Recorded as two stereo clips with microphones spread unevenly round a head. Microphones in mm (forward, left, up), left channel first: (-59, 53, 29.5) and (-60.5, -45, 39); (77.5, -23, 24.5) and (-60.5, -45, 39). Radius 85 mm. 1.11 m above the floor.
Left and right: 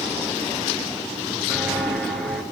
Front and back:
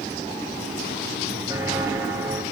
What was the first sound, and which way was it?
Footsteps, straight behind.